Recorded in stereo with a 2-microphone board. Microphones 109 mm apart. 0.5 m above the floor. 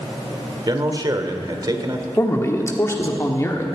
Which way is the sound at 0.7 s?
40° right (ahead or behind).